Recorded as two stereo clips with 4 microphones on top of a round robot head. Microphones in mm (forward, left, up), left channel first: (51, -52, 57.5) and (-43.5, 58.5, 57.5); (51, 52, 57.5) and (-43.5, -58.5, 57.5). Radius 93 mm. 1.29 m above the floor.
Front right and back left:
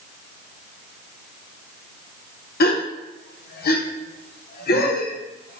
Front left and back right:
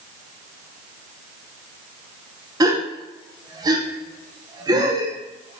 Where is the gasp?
65° right, 1.0 m.